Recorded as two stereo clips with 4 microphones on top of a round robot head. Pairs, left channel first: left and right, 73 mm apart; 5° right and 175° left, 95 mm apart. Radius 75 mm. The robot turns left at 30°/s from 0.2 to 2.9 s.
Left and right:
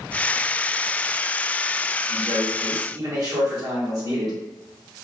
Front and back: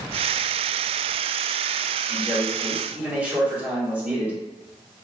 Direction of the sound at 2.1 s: 90° right.